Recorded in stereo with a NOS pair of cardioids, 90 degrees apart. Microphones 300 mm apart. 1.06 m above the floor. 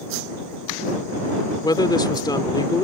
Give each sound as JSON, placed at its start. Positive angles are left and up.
{"t": 1.6, "sound": "a woman speaking", "azimuth_deg": 15}